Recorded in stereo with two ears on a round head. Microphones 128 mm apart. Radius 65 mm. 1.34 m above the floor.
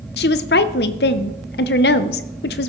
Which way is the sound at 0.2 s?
85° left.